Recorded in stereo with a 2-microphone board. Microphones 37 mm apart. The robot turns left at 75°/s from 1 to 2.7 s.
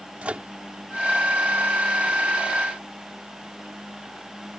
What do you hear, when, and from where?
0.2 s a microwave: 35° right (ahead or behind)